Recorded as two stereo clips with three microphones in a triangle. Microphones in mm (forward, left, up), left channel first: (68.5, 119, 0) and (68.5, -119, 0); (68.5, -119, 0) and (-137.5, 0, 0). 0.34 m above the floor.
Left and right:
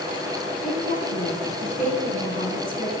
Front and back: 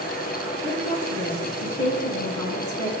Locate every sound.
0.6 s a woman speaking: 145° left, 3 m